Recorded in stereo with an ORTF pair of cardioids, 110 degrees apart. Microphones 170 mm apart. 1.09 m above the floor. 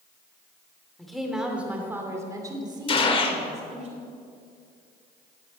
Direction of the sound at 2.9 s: 35° left.